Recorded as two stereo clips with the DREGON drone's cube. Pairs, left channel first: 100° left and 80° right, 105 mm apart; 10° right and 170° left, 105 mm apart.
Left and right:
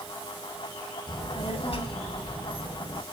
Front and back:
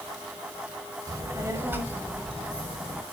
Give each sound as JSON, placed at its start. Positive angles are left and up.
{"t": 1.1, "sound": "a child speaking", "azimuth_deg": 125, "distance_m": 0.7}